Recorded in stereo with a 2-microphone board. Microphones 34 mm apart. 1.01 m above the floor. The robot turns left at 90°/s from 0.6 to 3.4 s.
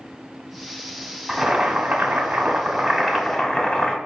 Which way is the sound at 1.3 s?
5° right.